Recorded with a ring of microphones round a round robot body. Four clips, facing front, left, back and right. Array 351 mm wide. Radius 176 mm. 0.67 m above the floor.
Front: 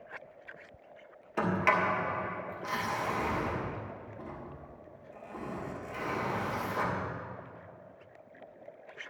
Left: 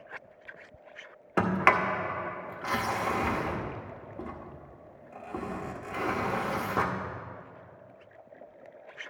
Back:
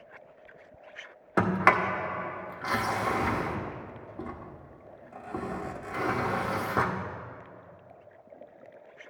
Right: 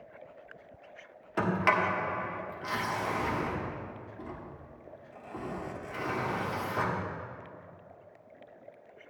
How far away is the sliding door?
About 0.9 m.